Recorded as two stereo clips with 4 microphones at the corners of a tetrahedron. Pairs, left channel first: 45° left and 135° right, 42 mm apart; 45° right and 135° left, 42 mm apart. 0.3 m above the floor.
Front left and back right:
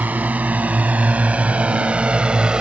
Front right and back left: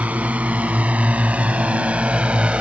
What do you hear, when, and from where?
0.0 s a drone: 175° right; by 2.6 s 175° left